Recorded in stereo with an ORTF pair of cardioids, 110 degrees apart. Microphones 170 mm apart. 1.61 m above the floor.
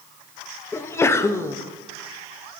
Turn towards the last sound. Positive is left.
turn(degrees=15)